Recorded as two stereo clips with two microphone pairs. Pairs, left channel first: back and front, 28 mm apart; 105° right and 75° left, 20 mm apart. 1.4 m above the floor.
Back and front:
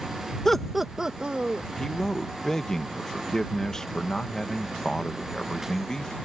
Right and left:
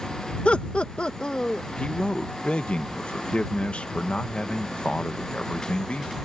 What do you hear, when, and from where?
0.5 s laughter: 105° right; by 1.7 s 50° right
1.8 s a man speaking: 110° right